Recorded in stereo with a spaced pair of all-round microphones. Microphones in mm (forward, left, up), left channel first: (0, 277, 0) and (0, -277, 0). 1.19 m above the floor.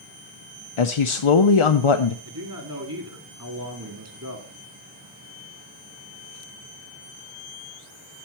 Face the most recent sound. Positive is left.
turn(degrees=-40)  # may be behind; listen again after turning